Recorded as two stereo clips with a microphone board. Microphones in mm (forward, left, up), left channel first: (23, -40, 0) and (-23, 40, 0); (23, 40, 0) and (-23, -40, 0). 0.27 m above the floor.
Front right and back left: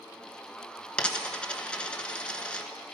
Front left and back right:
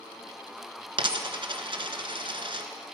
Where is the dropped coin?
140° right, 0.9 m.